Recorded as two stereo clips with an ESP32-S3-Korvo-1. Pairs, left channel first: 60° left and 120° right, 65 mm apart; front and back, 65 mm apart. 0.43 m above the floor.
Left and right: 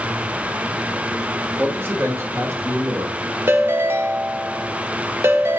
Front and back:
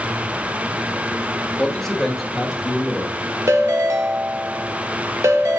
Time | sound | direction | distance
1.6 | a man speaking | 70° right | 1.5 m
3.5 | a ringtone | 160° right | 0.9 m